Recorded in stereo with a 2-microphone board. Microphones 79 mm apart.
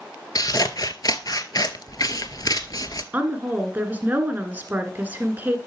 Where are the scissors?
55° left (ahead or behind), 0.6 m.